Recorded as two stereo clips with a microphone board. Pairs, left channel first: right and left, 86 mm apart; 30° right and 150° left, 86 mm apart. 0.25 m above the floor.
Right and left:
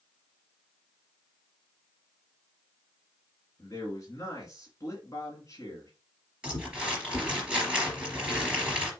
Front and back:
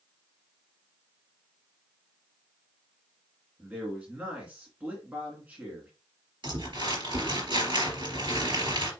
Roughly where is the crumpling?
Behind.